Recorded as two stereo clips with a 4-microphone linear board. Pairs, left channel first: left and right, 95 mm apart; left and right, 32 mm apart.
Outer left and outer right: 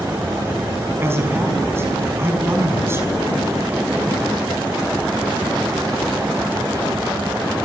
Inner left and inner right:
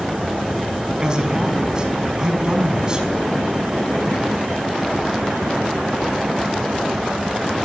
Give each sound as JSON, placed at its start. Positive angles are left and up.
{"t": 1.0, "sound": "a man speaking", "side_deg": -25, "distance_m": 5.0}